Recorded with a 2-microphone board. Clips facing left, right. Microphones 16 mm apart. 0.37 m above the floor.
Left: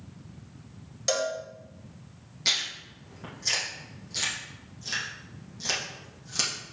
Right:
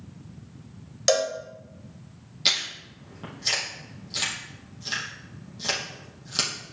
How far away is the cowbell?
About 1.4 m.